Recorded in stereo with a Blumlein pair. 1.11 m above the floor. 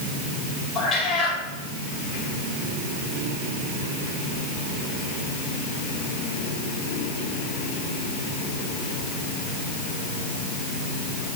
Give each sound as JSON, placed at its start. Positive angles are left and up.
{"t": 0.8, "sound": "a cat meowing", "azimuth_deg": 20, "distance_m": 4.5}